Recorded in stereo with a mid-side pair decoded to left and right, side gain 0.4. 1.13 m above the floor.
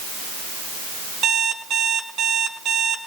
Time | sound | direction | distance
1.2 | an alarm clock | 65° right | 5 m